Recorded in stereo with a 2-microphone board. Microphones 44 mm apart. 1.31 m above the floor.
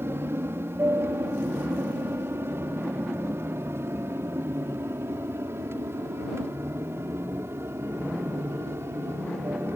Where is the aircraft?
65° right (ahead or behind); by 9.8 s 70° right (ahead or behind).